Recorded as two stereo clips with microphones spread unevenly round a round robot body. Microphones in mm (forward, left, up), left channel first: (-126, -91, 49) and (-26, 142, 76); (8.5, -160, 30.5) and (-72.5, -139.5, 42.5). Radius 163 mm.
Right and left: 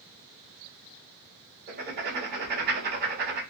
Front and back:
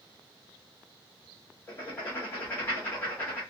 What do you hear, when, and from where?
1.7 s writing: 35° left, 1.2 m